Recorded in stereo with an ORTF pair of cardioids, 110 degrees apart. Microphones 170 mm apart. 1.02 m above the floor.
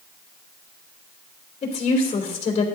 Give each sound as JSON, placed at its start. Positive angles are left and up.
{"t": 1.6, "sound": "a woman speaking", "azimuth_deg": 40, "distance_m": 3.0}